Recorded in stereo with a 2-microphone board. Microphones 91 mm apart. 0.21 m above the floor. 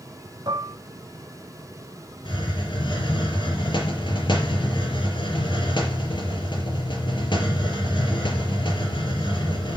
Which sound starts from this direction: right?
Dishes clattering, at 0.5 s.